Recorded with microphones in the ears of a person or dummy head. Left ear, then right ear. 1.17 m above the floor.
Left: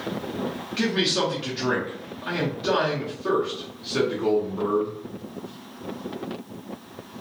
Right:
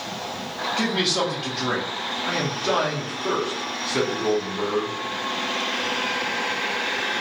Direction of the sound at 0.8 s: 5° right (ahead or behind).